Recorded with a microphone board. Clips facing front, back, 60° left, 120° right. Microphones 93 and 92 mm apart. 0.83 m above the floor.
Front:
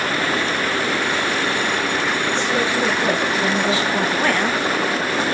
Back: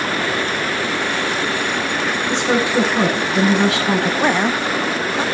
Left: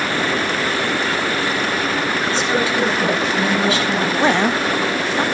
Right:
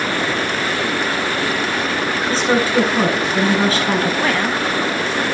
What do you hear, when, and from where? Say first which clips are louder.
2.3 s a woman speaking: back 6 dB, right 5 dB; 170° right, 9 m
4.2 s a woman speaking: back 2 dB, left 2 dB; 115° left, 0.7 m